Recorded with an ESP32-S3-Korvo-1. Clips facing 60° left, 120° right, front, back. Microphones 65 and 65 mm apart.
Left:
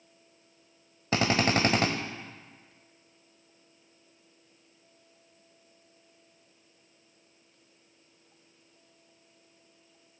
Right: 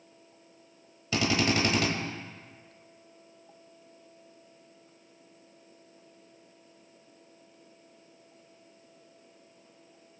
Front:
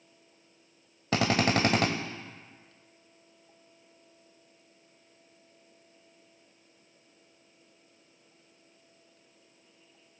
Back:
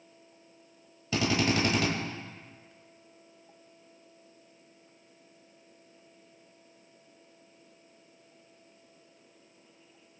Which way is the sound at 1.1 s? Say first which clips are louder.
Left 1 dB, front 2 dB; 20° left.